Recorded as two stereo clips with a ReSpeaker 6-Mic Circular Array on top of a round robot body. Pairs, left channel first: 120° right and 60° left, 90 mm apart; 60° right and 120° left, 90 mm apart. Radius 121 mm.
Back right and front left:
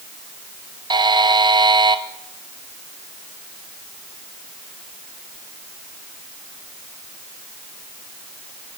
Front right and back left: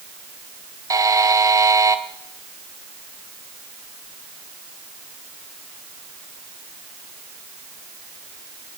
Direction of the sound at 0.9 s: 75° left.